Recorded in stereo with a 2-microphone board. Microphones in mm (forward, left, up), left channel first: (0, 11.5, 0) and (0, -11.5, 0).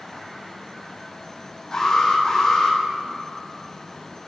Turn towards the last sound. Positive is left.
turn(degrees=30)  # may be behind; listen again after turning